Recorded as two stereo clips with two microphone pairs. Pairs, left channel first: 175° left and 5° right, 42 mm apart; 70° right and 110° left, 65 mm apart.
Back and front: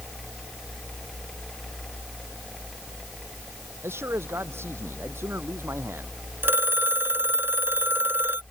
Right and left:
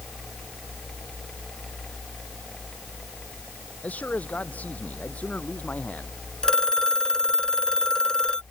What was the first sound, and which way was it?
A man speaking, 5° right.